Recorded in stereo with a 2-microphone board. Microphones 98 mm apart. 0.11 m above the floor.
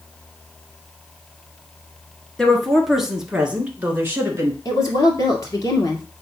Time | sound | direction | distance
2.4 | a woman speaking | 5° left (ahead or behind) | 1.9 m
4.7 | a woman speaking | 35° left (ahead or behind) | 2 m